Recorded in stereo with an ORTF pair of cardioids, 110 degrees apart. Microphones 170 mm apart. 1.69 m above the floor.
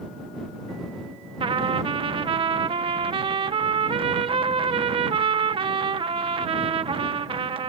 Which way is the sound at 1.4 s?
30° right.